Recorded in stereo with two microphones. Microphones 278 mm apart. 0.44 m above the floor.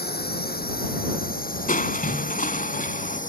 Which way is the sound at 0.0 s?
35° left (ahead or behind).